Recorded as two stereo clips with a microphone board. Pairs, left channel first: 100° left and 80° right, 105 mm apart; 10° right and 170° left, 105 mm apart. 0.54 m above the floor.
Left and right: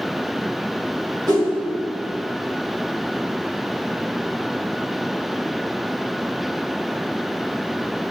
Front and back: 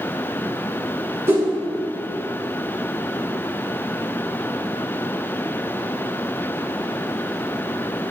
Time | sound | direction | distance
1.3 | a whoosh | 125° right | 2.5 m